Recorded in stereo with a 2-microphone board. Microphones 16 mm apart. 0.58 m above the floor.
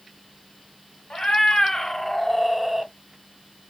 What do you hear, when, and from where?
1.1 s a cat meowing: 50° left (ahead or behind), 1.0 m; by 2.9 s 25° right (ahead or behind), 0.6 m